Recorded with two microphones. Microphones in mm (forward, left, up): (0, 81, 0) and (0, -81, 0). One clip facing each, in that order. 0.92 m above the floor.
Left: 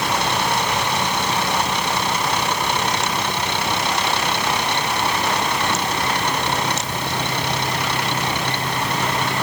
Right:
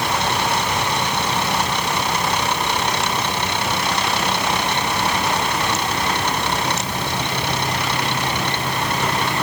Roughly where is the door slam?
I don't hear a door slam.